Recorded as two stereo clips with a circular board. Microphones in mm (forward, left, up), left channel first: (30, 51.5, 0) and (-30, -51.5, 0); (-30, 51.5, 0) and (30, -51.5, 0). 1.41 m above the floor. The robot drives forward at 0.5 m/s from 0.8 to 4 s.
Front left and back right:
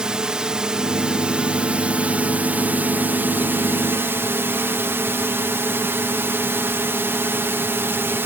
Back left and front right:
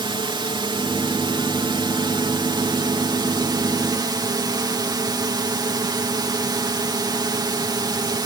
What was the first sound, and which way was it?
A drone, 40° right.